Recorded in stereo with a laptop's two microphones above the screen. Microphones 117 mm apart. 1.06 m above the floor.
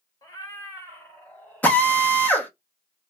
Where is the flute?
No flute in this recording.